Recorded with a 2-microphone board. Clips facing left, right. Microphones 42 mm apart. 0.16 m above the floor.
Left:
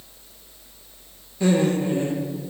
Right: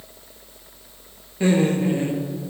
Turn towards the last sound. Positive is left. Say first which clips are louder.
# right 1 dB
turn(degrees=-30)  # may be behind; listen again after turning